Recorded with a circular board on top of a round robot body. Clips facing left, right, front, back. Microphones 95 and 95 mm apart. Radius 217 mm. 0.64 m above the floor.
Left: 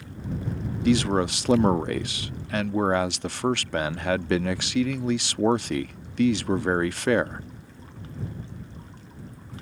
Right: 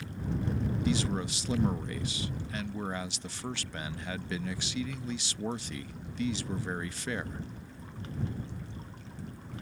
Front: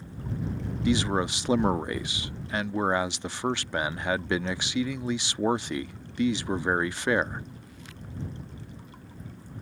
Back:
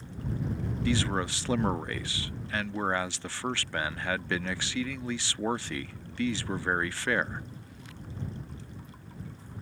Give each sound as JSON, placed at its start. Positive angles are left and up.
{"t": 0.8, "sound": "a man speaking", "azimuth_deg": 70}